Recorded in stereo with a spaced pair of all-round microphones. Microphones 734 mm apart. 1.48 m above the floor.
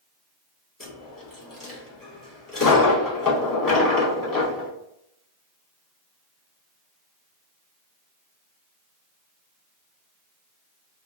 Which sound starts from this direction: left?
A dropped coin, at 0.8 s.